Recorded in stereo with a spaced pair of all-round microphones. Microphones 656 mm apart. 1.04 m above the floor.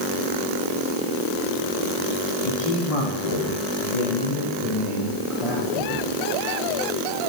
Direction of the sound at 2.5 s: 55° left (ahead or behind).